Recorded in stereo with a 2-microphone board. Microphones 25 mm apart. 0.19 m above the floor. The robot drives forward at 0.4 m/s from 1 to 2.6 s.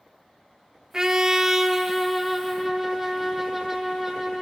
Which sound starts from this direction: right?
A trumpet, at 0.9 s.